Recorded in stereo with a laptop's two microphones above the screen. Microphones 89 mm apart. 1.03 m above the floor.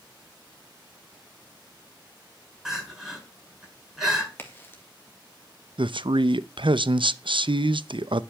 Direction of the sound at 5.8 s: 75° right (ahead or behind).